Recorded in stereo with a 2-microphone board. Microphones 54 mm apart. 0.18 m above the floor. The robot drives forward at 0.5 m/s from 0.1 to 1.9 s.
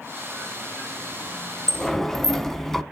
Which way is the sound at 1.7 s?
10° left (ahead or behind).